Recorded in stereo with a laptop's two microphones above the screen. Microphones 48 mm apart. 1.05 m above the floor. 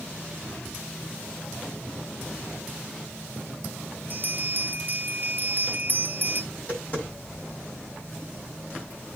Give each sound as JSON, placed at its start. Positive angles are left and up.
{"t": 4.1, "sound": "a bell", "side_deg": -45, "distance_m": 0.7}
{"t": 6.5, "sound": "tapping", "side_deg": 35, "distance_m": 6.5}